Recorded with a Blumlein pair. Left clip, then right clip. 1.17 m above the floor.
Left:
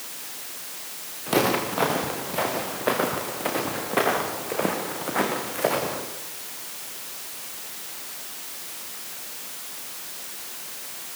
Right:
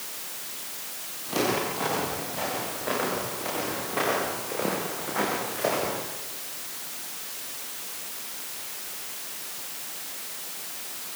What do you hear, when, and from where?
1.3 s footsteps: 60° left, 7 m; by 6.0 s 80° left, 5.5 m